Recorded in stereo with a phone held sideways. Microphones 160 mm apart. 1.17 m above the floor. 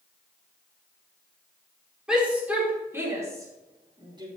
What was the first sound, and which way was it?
A shout, 5° right (ahead or behind).